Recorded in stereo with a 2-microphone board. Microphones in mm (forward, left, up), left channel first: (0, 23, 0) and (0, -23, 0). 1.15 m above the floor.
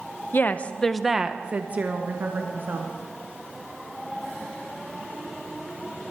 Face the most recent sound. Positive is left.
turn(degrees=-55)  # may be behind; listen again after turning